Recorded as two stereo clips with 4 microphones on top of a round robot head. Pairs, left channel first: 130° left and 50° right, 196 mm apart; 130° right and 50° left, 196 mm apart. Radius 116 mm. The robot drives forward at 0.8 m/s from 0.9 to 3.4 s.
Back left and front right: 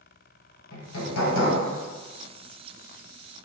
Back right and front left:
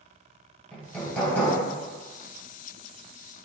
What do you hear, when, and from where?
0.7 s hammering: 145° left, 1.9 m; by 1.6 s 150° left, 2.5 m